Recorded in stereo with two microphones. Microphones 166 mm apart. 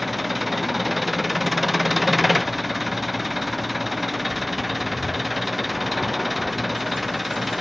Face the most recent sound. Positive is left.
turn(degrees=0)  # may be behind; listen again after turning